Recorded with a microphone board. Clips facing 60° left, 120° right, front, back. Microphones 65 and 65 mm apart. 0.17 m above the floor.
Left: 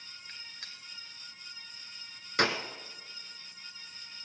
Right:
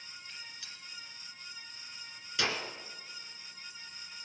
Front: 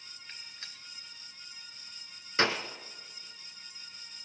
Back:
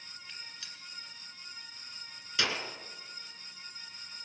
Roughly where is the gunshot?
Ahead left.